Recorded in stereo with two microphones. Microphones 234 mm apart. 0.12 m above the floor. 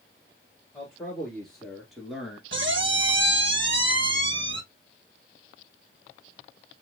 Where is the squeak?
55° right (ahead or behind), 0.5 m.